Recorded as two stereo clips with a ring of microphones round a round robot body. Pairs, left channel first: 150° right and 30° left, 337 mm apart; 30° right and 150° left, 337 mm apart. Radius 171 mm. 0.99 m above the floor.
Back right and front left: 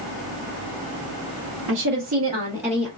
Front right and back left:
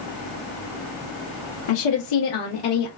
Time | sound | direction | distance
1.7 | a woman speaking | 25° right | 1.1 m